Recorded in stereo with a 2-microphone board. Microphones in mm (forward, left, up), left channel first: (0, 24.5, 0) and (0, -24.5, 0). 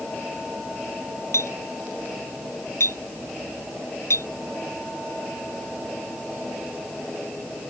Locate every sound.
1.3 s a clink: 80° left